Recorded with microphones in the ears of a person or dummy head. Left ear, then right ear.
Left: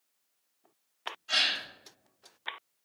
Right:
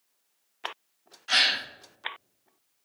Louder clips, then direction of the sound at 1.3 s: Right 5 dB; 45° right (ahead or behind).